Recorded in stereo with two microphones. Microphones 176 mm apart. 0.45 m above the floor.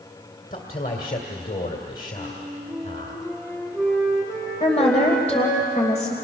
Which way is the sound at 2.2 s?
10° left (ahead or behind).